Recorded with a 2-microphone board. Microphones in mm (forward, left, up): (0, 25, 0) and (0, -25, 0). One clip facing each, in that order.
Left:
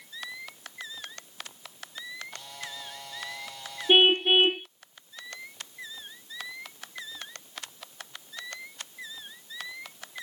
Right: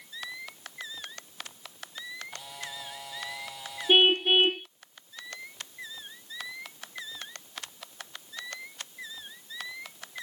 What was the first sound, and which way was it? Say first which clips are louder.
A camera shutter: even; 5° right (ahead or behind).